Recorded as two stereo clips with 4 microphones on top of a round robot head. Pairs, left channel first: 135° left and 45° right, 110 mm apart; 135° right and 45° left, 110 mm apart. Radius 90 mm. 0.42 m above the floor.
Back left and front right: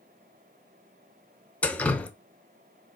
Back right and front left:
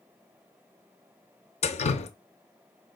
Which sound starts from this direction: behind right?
Dripping, at 1.6 s.